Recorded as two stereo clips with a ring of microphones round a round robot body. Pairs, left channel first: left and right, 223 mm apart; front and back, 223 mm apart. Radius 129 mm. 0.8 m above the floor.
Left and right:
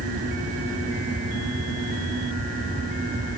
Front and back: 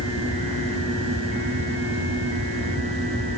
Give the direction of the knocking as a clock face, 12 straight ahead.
No knocking in this recording.